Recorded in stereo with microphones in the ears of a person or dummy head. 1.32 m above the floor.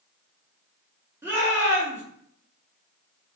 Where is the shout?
10° right (ahead or behind), 1.4 m.